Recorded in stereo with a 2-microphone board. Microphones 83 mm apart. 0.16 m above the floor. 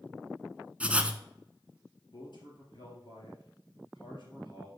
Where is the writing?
15° right (ahead or behind), 0.7 m.